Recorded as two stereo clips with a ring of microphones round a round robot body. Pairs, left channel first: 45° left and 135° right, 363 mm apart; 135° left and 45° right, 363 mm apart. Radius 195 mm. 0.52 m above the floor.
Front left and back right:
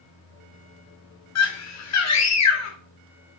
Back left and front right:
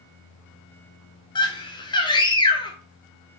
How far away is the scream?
About 1.3 m.